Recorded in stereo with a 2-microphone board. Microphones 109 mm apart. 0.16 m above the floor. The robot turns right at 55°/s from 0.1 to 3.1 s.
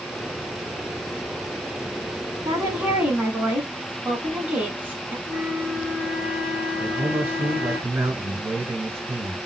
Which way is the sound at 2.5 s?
60° right.